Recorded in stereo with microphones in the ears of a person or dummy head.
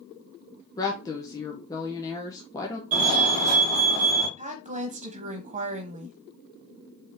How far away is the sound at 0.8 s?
About 0.8 m.